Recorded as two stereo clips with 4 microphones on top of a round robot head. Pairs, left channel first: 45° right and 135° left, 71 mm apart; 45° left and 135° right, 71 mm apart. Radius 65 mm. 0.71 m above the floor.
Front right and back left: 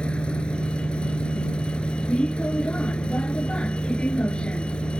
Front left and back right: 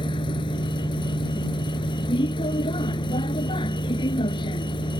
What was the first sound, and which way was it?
A vehicle, 30° left.